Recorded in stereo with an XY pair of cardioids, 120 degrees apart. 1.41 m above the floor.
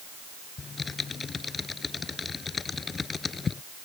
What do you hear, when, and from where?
0.6 s typing on a keyboard: 30° left